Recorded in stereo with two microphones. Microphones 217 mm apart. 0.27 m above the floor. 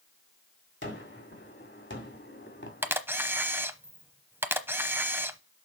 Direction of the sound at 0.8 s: 55° left (ahead or behind).